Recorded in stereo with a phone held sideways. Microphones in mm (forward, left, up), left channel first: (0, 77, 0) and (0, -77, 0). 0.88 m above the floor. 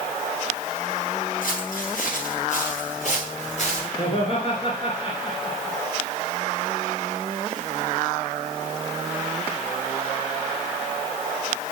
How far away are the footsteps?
About 7.5 m.